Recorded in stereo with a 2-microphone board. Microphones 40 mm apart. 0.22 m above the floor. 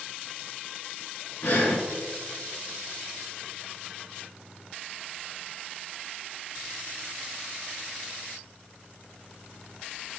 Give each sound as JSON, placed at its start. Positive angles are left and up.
{"t": 1.4, "sound": "breathing", "side_deg": 55, "distance_m": 1.6}